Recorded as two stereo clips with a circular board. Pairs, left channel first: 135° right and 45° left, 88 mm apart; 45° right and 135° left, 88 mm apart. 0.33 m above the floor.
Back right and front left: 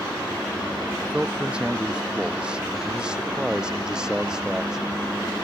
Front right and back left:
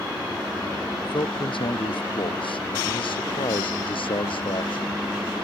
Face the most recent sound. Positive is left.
turn(degrees=-40)